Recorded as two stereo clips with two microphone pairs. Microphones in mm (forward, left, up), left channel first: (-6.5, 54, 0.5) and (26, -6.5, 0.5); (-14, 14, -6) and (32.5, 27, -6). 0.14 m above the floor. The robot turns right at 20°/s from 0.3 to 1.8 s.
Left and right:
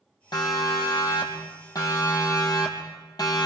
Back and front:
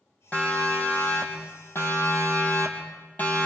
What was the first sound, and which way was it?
A siren, 135° left.